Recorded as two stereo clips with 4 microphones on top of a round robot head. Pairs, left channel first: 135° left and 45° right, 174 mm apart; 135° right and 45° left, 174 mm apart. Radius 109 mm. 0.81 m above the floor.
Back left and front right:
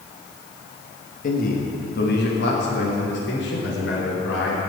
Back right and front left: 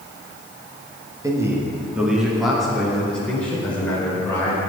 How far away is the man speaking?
About 1.6 m.